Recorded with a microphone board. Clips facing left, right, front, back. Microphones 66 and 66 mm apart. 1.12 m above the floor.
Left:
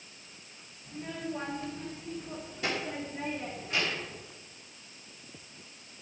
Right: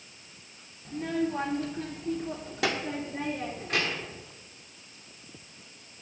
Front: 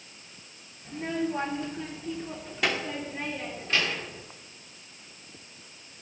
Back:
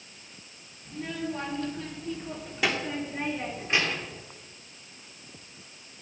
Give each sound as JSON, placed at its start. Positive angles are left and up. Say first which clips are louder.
{"t": 0.8, "sound": "a child speaking", "louder": "right 8 dB, front 4 dB", "azimuth_deg": -60, "distance_m": 1.8}